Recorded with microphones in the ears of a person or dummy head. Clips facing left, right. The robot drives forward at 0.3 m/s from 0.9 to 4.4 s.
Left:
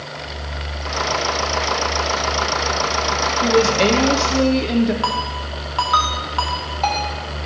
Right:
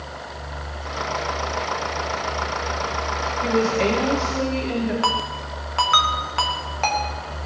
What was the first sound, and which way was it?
A woman speaking, 55° left (ahead or behind).